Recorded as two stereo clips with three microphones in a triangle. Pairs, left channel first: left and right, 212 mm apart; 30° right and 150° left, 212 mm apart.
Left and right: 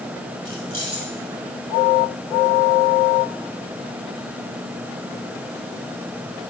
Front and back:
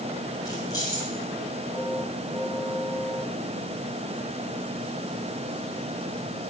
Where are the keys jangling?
100° right, 7 m.